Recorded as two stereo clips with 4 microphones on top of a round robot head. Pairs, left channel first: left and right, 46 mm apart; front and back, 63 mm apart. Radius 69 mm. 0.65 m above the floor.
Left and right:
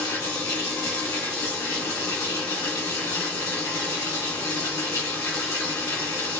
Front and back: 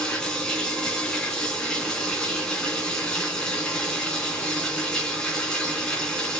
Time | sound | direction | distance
0.0 | running water | 75° left | 2.5 m